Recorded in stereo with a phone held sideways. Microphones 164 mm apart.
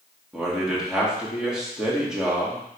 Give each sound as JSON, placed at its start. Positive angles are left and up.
{"t": 0.3, "sound": "a man speaking", "side_deg": -5, "distance_m": 1.5}